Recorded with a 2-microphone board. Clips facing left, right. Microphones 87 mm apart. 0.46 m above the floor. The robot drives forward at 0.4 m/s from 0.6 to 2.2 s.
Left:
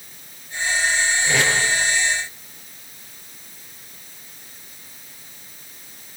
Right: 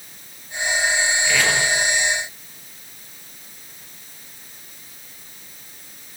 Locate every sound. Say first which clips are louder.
1.2 s tape being pulled: even; 25° left (ahead or behind), 9 m; by 1.5 s 20° left (ahead or behind), 9 m